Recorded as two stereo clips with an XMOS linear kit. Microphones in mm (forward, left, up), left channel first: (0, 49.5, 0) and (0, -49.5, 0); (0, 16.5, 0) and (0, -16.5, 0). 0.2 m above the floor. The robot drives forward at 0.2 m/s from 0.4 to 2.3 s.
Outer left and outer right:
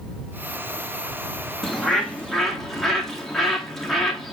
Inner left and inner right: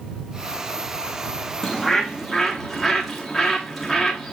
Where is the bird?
Centre (ahead or behind), 2 m.